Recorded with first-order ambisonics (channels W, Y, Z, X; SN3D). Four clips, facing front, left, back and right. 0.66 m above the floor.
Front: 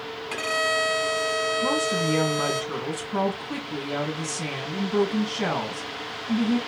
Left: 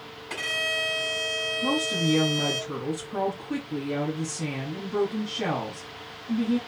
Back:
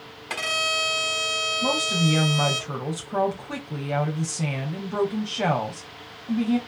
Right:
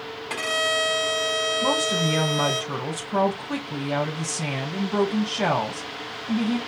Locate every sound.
0.3 s a violin: 155° right, 4.5 m
1.6 s a woman speaking: 135° right, 3.5 m